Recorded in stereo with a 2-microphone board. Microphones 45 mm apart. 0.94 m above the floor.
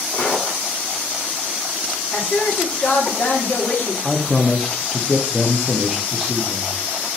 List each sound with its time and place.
0.1 s footsteps: 30° left (ahead or behind), 1.9 m
2.1 s a woman speaking: 60° left (ahead or behind), 1.5 m
4.0 s a man speaking: 5° left (ahead or behind), 0.6 m